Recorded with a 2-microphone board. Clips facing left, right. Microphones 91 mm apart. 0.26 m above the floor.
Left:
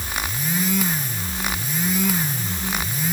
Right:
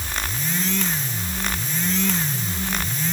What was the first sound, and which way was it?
Only background noise.